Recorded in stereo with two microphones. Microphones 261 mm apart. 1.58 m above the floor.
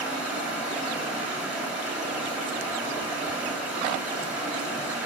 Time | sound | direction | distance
0.0 | running water | 5° right (ahead or behind) | 3.5 m